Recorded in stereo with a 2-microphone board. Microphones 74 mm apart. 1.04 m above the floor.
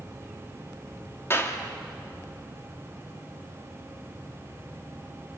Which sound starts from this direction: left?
A clap, at 1.3 s.